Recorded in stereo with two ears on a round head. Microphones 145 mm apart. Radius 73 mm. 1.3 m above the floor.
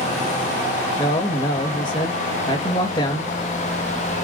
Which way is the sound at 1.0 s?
30° left (ahead or behind).